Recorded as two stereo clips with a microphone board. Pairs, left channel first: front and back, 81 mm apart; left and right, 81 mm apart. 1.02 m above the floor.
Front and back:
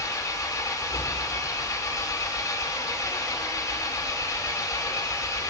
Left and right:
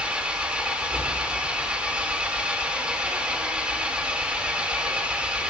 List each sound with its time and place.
0.0 s an engine running: 20° right, 0.8 m